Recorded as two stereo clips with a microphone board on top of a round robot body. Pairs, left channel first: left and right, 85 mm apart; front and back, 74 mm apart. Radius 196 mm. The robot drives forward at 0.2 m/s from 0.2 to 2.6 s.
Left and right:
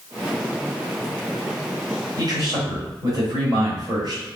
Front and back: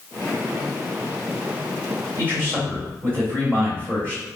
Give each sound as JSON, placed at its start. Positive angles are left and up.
{"t": 2.2, "sound": "a man speaking", "azimuth_deg": -120, "distance_m": 1.8}